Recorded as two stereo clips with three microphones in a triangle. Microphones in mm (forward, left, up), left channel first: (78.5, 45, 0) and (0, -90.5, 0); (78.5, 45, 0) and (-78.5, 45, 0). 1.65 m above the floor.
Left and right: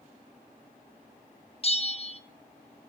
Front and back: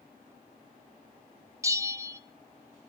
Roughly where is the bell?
Left.